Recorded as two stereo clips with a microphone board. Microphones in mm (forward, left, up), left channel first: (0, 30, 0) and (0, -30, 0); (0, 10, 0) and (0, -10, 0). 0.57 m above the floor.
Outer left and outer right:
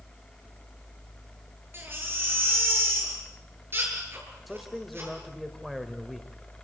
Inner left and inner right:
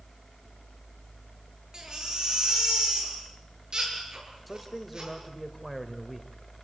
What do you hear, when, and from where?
1.7 s a baby crying: 40° right (ahead or behind), 7 m
4.5 s a man speaking: centre (ahead or behind), 2.5 m